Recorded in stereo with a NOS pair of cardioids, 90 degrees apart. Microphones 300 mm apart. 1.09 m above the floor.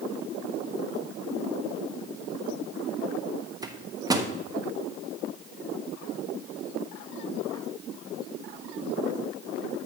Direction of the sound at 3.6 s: 10° right.